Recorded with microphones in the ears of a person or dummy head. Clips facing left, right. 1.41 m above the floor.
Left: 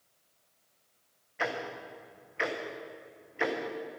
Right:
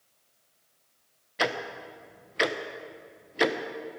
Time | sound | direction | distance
1.4 | ticking | 50° right (ahead or behind) | 0.7 m